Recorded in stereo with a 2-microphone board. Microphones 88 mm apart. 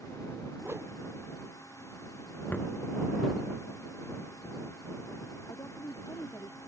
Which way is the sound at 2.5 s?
15° left (ahead or behind).